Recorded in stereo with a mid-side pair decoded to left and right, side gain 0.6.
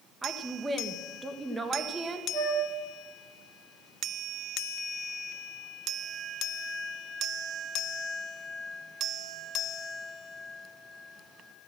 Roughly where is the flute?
Ahead right.